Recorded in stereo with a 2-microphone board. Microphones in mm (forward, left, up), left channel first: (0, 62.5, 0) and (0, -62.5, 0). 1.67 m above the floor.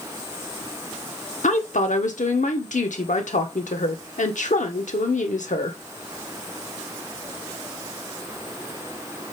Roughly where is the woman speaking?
Left.